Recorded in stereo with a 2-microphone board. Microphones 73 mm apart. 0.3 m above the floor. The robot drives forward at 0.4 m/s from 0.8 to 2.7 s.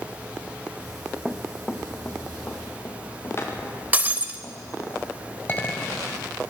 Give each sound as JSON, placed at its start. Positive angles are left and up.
{"t": 1.2, "sound": "running footsteps", "side_deg": -5, "distance_m": 0.9}
{"t": 3.9, "sound": "breaking glass", "side_deg": -20, "distance_m": 0.7}
{"t": 5.5, "sound": "a clink", "side_deg": 30, "distance_m": 1.2}